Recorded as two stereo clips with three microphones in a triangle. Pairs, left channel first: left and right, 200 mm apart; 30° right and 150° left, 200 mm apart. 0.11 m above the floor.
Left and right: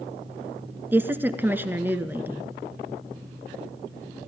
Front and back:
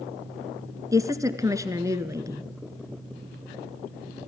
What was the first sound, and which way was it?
A woman speaking, 155° right.